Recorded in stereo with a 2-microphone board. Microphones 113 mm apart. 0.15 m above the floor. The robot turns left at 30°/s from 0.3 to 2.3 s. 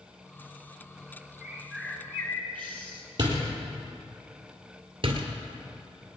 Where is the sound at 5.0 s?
55° right (ahead or behind), 1.9 m.